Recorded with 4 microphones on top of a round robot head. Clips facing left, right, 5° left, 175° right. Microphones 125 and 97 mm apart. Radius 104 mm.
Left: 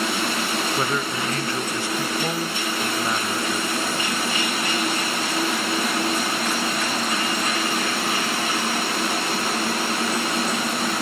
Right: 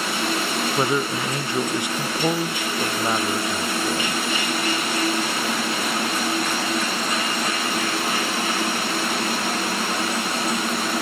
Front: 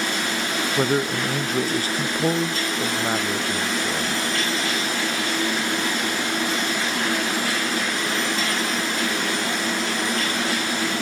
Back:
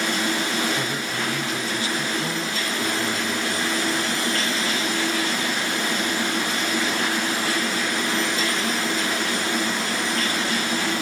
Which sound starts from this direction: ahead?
A man speaking, at 0.8 s.